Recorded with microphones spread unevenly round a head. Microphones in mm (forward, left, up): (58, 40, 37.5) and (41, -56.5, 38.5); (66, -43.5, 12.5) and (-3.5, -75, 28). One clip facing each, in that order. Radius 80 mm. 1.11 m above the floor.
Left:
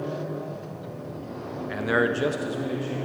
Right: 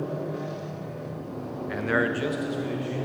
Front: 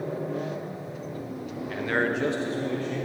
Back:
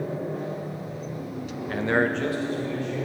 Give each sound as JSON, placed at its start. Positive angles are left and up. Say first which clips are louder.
{"t": 1.7, "sound": "a man speaking", "louder": "left 2 dB, back 3 dB", "azimuth_deg": 170, "distance_m": 0.6}